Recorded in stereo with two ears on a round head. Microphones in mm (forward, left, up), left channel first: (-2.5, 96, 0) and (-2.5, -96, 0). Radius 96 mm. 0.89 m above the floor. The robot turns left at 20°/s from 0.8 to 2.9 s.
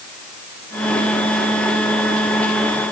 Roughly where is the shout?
I don't hear a shout.